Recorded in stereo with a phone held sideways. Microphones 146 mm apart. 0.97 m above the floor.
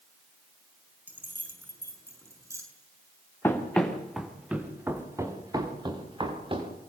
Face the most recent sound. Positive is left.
turn(degrees=-40)  # may be behind; listen again after turning